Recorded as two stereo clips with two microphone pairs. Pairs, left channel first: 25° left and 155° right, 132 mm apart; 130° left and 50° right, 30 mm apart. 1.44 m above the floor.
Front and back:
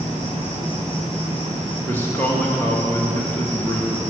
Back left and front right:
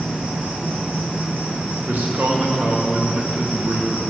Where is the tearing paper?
No tearing paper in this recording.